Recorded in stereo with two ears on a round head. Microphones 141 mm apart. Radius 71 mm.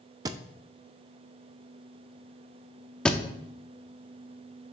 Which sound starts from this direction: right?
A thud, at 0.2 s.